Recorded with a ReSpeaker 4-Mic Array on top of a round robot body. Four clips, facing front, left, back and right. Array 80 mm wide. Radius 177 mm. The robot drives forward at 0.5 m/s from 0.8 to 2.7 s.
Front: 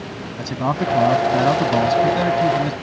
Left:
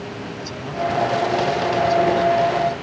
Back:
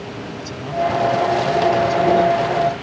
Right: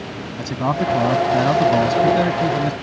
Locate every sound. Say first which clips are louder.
0.4 s a man speaking: right 5 dB, even; 50° right; by 2.7 s 55° right